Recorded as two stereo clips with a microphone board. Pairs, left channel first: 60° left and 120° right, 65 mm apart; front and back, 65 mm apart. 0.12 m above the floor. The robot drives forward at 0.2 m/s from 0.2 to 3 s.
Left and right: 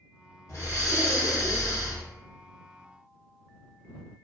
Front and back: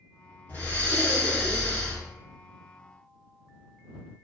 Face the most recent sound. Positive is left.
turn(degrees=60)